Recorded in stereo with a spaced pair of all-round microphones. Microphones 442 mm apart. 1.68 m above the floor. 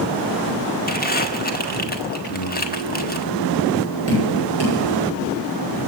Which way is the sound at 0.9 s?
20° left (ahead or behind).